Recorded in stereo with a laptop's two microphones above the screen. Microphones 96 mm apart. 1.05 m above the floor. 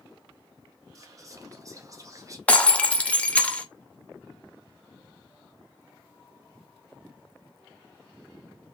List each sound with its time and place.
0.9 s whispering: 35° right (ahead or behind), 0.5 m
2.5 s breaking glass: 15° left (ahead or behind), 0.6 m